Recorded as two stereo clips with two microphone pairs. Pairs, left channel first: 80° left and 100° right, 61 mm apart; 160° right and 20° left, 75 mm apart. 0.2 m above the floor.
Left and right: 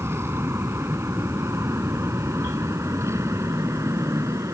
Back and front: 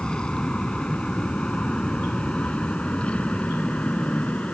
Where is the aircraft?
90° right; by 4.5 s 95° right.